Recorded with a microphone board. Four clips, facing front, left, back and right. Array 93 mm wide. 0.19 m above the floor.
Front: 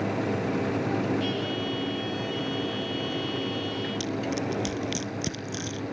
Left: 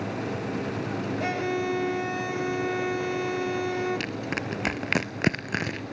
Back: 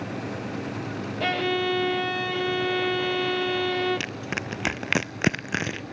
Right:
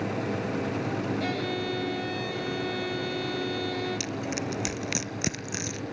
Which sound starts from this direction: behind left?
Crushing, at 4.0 s.